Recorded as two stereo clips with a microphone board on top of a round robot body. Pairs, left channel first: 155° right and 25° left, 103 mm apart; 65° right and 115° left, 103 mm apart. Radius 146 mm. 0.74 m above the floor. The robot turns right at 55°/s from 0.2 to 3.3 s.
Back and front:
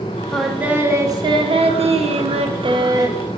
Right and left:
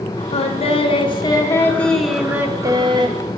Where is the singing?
75° right, 0.8 m; by 3.2 s 85° left, 0.8 m.